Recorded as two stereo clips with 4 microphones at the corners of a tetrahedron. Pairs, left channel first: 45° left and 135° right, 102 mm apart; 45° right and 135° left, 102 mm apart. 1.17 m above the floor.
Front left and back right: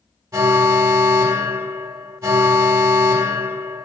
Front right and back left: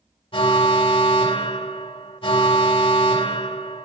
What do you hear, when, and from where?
0.3 s an alarm: 75° right, 1.1 m